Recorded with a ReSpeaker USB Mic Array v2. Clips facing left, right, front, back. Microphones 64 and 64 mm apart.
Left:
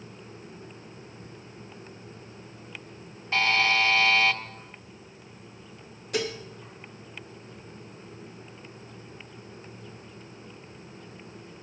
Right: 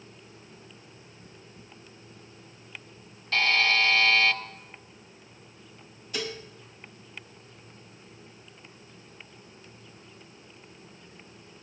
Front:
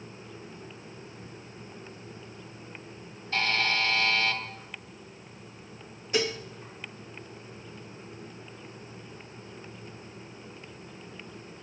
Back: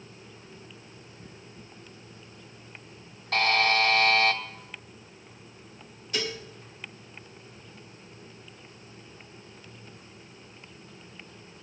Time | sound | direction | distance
3.3 | a buzzer | 160° left | 1.1 m
6.1 | dishes clattering | 65° left | 1.6 m